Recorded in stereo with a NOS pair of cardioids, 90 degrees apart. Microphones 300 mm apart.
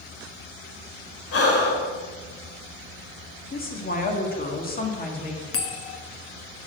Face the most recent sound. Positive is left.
turn(degrees=50)